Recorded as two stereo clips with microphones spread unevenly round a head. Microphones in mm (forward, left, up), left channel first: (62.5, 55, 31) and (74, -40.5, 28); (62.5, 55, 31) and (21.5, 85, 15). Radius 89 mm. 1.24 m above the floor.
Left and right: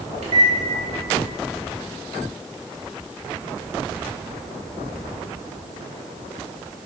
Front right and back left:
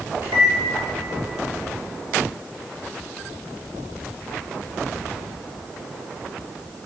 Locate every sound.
0.2 s a microwave: 95° right, 1.6 m